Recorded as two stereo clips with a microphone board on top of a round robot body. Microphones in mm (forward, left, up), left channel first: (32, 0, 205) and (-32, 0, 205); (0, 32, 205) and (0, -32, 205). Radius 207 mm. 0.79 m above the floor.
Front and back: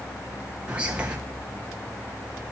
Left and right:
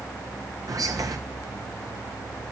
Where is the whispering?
105° right, 1.3 m.